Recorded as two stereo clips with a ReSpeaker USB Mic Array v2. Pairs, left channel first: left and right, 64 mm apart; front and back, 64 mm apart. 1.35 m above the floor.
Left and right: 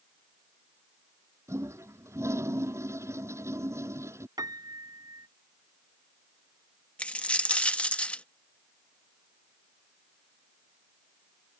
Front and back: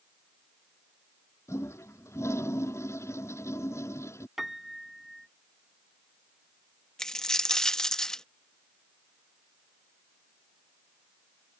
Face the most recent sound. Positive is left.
turn(degrees=65)